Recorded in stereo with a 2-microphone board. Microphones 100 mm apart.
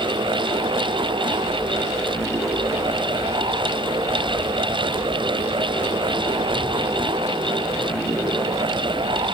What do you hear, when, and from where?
Only background noise.